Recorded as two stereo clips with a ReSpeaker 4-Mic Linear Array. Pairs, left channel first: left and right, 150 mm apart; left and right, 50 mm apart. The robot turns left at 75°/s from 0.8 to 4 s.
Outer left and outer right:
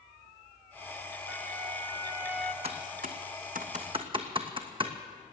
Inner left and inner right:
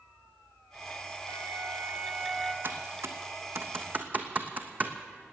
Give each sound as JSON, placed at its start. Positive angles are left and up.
{"t": 1.3, "sound": "a flute", "azimuth_deg": -95, "distance_m": 0.6}
{"t": 2.6, "sound": "typing on a keyboard", "side_deg": -40, "distance_m": 1.3}